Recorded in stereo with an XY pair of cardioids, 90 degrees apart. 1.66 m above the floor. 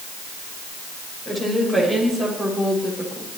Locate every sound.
1.2 s a woman speaking: 25° right, 9 m; by 3.3 s 15° right, 9.5 m